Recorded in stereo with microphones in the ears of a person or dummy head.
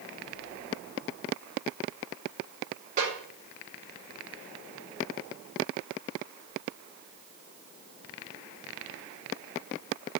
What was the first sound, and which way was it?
A snare drum, 45° right (ahead or behind).